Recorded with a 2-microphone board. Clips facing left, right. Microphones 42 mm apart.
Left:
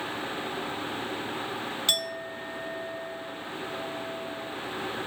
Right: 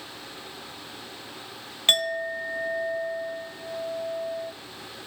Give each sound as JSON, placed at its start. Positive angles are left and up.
{"t": 1.9, "sound": "a clink", "side_deg": -45, "distance_m": 1.0}